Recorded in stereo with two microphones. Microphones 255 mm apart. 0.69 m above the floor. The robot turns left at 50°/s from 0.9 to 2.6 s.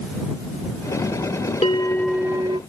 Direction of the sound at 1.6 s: 25° left.